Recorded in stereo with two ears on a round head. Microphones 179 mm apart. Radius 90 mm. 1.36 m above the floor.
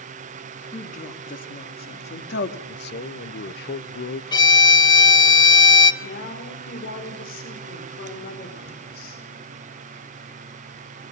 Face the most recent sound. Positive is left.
turn(degrees=50)  # may be behind; listen again after turning